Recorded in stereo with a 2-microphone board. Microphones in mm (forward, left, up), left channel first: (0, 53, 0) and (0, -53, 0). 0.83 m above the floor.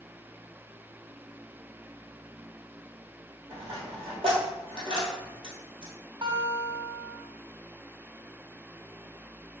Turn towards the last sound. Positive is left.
turn(degrees=-50)  # may be behind; listen again after turning